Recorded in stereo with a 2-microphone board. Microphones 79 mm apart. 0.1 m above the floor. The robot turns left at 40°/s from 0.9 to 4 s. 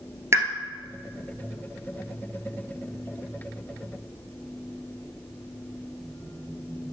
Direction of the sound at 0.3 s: 35° right (ahead or behind).